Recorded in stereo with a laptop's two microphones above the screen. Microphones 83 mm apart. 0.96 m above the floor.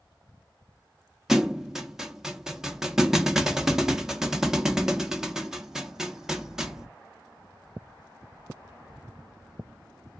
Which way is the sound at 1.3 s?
5° right (ahead or behind).